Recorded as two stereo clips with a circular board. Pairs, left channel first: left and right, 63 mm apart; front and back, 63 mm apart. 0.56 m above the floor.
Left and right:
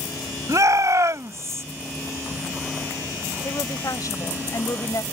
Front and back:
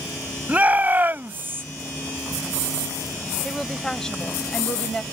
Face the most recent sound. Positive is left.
turn(degrees=80)